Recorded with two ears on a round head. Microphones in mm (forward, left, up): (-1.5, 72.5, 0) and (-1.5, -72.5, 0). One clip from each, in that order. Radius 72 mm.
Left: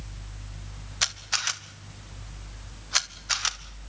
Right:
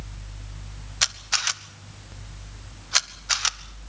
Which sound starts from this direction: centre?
A camera shutter, at 1.0 s.